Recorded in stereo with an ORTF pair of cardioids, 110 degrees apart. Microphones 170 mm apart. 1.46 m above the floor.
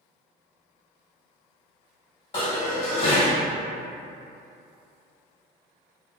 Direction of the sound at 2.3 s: 40° left.